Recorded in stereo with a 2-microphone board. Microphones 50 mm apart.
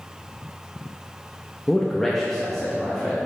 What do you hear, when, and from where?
1.7 s a man speaking: 10° left (ahead or behind), 0.6 m; by 3.2 s 5° left (ahead or behind), 1.3 m